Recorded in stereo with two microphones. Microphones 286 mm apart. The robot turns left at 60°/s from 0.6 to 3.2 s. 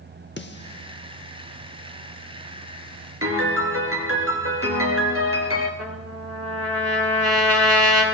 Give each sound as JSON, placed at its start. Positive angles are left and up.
{"t": 0.4, "sound": "a snare drum", "side_deg": 40, "distance_m": 1.0}
{"t": 3.2, "sound": "a piano", "side_deg": -50, "distance_m": 2.5}
{"t": 5.8, "sound": "a trumpet", "side_deg": -60, "distance_m": 4.5}